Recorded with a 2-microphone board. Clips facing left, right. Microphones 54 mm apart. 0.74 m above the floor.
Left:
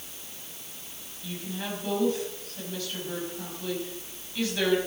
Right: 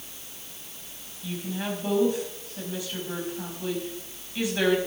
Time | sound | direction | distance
1.2 | a woman speaking | 20° right (ahead or behind) | 5 m